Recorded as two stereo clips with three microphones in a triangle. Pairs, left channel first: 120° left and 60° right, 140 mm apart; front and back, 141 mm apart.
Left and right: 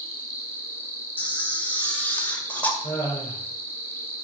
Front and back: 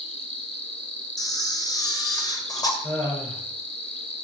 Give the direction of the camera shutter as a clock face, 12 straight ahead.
10 o'clock.